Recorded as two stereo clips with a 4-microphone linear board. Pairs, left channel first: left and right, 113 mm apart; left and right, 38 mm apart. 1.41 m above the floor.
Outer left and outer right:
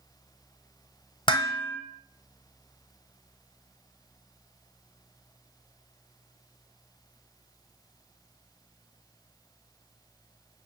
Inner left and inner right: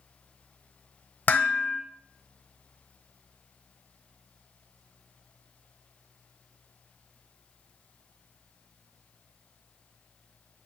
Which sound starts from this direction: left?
Dishes clattering, at 1.3 s.